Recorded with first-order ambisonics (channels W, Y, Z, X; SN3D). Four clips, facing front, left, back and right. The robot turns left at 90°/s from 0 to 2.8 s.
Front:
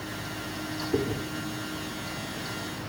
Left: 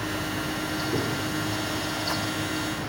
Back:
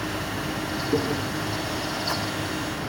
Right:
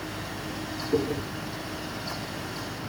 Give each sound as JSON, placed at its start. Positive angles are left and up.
{"t": 0.9, "sound": "chewing", "azimuth_deg": -160, "distance_m": 2.5}